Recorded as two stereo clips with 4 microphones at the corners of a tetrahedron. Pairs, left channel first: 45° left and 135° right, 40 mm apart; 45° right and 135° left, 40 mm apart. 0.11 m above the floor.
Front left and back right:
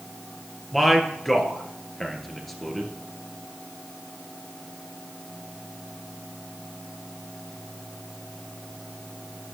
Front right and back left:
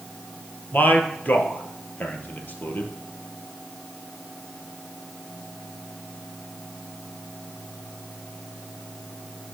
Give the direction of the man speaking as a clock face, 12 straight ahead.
1 o'clock.